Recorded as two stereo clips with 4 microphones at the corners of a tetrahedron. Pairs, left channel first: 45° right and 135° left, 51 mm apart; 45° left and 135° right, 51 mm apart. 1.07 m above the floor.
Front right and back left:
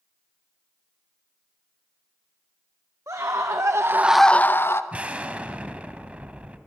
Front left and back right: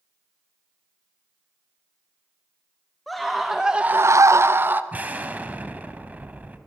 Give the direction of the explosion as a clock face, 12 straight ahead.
6 o'clock.